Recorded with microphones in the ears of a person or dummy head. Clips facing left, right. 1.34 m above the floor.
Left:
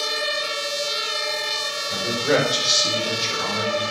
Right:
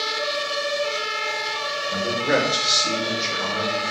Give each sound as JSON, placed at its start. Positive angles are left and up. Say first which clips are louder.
{"t": 1.9, "sound": "a man speaking", "louder": "left 1 dB", "side_deg": 5, "distance_m": 5.5}